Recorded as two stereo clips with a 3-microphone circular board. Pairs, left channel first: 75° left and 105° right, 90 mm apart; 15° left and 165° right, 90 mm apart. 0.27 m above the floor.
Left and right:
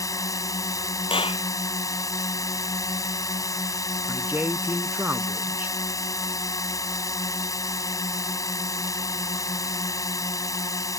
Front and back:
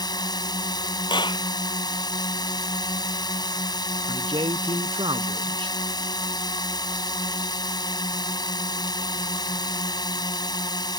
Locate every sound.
0.0 s a drone: 35° left
1.1 s a clap: 55° left
4.1 s a man speaking: 170° right